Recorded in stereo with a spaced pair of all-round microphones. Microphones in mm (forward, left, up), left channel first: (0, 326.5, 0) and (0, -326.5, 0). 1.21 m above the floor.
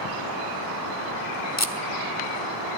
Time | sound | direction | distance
1.6 | tape being pulled | 25° left (ahead or behind) | 0.8 m